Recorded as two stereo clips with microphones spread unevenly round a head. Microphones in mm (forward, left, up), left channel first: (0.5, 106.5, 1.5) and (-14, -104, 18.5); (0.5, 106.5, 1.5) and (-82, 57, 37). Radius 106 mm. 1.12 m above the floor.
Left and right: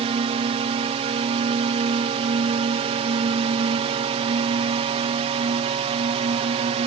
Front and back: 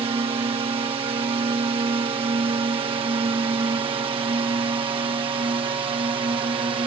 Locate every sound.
0.0 s a drone: 145° right; by 6.9 s 140° right